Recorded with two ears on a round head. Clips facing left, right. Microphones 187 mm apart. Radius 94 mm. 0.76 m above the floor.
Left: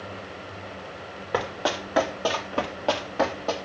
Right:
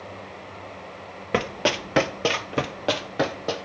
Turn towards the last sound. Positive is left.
turn(degrees=-15)  # may be behind; listen again after turning